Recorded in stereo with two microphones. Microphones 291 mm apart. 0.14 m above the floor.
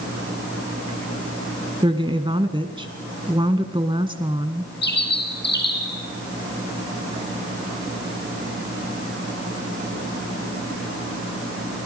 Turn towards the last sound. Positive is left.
turn(degrees=35)  # may be behind; listen again after turning